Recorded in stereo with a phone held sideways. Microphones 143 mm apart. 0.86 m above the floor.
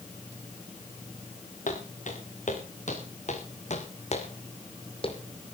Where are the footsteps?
70° left (ahead or behind), 6 m; by 5.2 s 40° left (ahead or behind), 2.5 m.